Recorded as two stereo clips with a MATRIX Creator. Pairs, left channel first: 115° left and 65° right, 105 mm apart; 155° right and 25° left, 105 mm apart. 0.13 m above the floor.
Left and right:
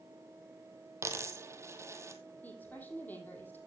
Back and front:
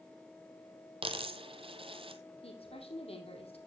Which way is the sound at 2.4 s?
175° right.